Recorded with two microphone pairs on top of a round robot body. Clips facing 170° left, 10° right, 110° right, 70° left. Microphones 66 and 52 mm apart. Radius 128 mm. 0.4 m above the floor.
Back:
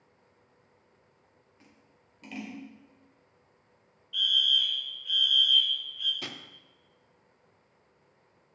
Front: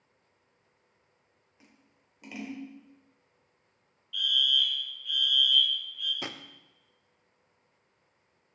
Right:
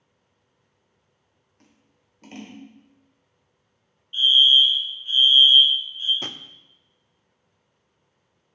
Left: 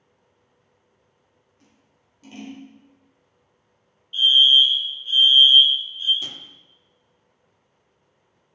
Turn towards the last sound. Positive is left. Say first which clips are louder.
# front 2 dB, right 1 dB
turn(degrees=-75)